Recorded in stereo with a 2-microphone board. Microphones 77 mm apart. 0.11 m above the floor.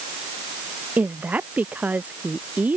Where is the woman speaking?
20° right (ahead or behind).